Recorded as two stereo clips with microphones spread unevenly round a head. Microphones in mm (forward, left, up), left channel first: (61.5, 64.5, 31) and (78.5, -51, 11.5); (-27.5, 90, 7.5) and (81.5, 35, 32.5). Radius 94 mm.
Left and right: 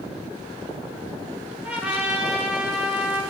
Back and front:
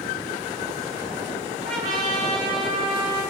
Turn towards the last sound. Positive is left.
turn(degrees=0)